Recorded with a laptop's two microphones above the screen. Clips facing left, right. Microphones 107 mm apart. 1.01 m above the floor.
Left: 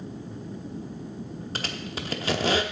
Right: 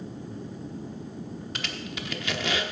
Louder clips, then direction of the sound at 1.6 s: Left 4 dB; 35° left (ahead or behind).